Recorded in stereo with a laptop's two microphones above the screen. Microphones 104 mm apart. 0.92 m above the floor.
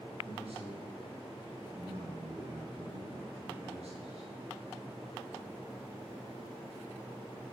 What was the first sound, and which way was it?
A man speaking, 60° right (ahead or behind).